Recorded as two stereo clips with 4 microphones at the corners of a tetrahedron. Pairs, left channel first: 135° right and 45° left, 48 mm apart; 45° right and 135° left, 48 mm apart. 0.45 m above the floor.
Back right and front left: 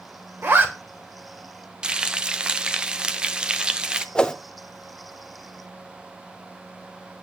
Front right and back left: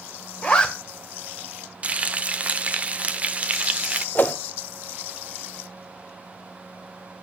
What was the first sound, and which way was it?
A zipper, 20° left.